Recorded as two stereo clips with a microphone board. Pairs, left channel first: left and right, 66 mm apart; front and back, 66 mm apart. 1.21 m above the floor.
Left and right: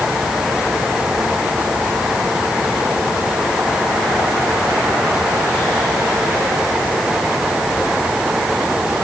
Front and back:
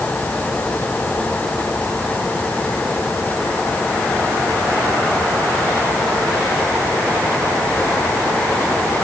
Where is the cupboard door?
No cupboard door in this recording.